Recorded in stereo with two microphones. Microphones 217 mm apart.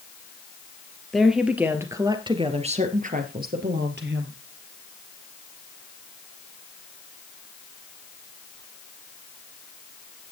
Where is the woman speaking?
Centre (ahead or behind), 3 m; by 4.3 s 60° right (ahead or behind), 3.5 m.